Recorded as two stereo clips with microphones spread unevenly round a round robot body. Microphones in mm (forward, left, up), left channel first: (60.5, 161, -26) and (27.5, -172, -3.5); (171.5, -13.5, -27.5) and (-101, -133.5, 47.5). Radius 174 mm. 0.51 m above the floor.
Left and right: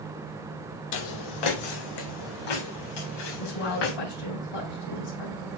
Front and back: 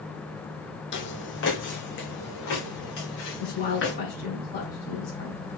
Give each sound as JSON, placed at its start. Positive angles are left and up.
{"t": 0.9, "sound": "footsteps", "azimuth_deg": 90, "distance_m": 0.9}
{"t": 3.4, "sound": "a woman speaking", "azimuth_deg": 90, "distance_m": 3.0}